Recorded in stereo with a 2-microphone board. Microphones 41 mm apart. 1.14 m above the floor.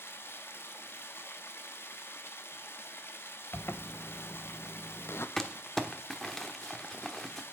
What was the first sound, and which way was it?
Running water, 75° left (ahead or behind).